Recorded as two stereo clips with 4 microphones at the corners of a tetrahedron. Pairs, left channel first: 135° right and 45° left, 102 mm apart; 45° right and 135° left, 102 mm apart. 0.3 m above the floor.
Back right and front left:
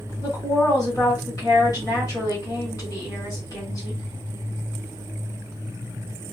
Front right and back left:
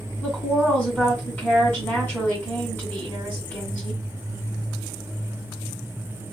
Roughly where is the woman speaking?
Right.